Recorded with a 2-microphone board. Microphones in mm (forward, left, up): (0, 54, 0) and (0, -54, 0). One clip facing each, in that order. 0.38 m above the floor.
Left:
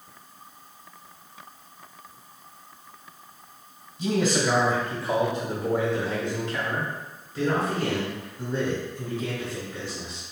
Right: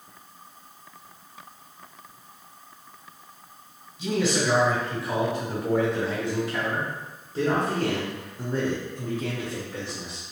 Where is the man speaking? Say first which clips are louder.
Left 1 dB; 45° left (ahead or behind), 1.9 m; by 10.2 s 60° right (ahead or behind), 3 m.